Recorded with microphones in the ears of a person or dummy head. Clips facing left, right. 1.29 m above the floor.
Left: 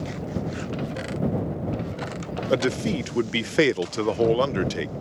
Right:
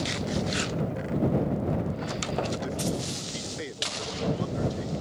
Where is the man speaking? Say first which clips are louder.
Left 7 dB; 75° left (ahead or behind).